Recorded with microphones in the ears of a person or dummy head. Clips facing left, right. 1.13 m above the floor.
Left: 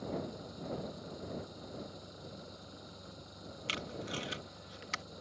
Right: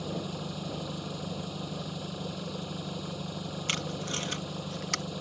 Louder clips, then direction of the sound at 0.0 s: Right 4 dB; 75° right (ahead or behind).